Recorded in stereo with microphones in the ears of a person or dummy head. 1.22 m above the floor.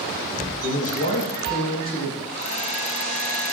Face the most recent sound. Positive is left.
turn(degrees=35)  # may be behind; listen again after turning